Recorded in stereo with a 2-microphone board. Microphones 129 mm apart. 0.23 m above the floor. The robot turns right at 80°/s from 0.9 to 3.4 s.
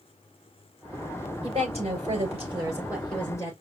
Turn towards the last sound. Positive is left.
turn(degrees=25)